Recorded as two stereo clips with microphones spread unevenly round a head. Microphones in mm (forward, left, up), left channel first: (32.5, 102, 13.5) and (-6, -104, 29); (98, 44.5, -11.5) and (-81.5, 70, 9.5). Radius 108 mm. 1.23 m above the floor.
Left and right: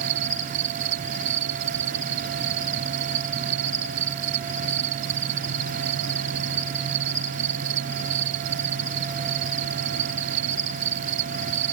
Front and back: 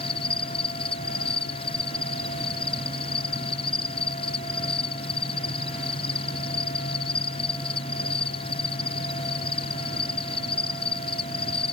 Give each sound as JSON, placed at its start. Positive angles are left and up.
{"t": 0.0, "sound": "an insect", "azimuth_deg": -75}